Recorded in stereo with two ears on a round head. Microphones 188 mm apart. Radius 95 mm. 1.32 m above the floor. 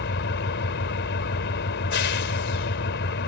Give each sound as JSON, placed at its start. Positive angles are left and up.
{"t": 0.0, "sound": "an engine running", "side_deg": 60}